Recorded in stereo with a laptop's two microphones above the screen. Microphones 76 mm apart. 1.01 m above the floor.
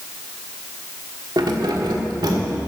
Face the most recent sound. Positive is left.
turn(degrees=-65)  # may be behind; listen again after turning